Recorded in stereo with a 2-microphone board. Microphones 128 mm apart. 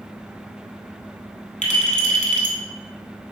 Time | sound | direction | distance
1.6 | a clink | 65° left (ahead or behind) | 1.6 m